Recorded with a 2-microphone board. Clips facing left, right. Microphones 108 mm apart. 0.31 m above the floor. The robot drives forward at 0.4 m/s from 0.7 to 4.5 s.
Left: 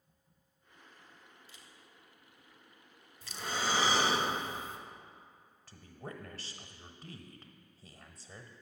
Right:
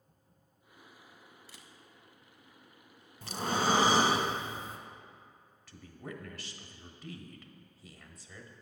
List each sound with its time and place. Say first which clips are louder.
1.5 s a camera shutter: right 3 dB; 80° right, 0.6 m; by 1.7 s 75° right (ahead or behind), 0.7 m
3.2 s breathing: right 6 dB; 60° right (ahead or behind), 0.8 m; by 4.8 s 40° right (ahead or behind), 1.1 m
5.7 s a woman speaking: right 1 dB; 35° left (ahead or behind), 1.0 m